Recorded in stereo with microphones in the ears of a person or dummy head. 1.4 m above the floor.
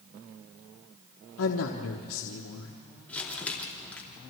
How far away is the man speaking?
About 1.2 m.